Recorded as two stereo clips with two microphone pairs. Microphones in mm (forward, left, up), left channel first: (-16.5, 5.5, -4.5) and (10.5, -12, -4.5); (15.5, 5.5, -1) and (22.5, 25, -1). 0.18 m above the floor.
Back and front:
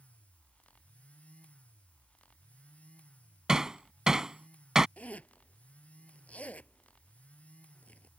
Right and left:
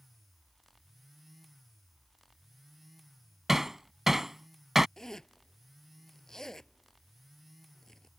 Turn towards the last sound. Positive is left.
turn(degrees=-170)